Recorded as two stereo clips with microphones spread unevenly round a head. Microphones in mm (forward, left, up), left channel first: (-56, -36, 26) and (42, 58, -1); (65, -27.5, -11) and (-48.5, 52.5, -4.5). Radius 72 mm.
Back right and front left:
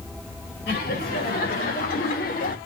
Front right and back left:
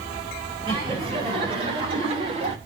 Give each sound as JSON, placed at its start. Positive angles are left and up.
{"t": 0.7, "sound": "laughter", "azimuth_deg": -155, "distance_m": 4.5}